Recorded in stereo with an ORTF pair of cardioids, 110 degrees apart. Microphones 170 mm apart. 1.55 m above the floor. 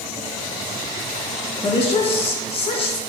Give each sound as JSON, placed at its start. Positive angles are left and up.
{"t": 1.6, "sound": "a woman speaking", "azimuth_deg": 35, "distance_m": 1.6}